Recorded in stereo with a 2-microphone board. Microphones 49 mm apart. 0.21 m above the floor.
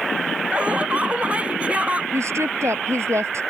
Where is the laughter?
25° right (ahead or behind).